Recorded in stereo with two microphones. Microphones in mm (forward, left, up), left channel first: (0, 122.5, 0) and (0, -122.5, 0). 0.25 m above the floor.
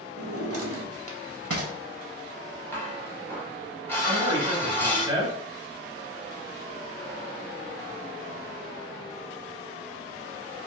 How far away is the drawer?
About 0.6 m.